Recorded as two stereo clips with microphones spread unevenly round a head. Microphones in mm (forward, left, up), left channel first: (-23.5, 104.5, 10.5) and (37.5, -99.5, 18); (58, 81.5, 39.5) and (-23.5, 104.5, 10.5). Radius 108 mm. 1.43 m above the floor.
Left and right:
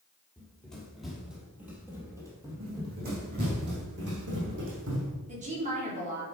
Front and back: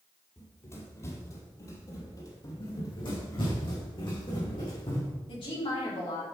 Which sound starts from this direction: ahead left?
Running footsteps, at 0.4 s.